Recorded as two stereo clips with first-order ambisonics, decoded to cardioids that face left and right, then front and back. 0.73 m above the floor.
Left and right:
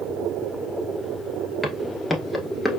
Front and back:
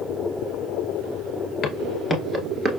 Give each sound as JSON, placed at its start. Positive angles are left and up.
{"t": 1.6, "sound": "footsteps", "azimuth_deg": 5, "distance_m": 0.7}